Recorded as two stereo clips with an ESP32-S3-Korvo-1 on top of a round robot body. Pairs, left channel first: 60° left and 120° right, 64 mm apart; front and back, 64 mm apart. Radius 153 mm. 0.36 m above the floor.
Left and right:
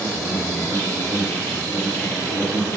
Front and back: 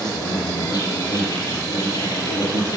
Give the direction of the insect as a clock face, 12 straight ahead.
12 o'clock.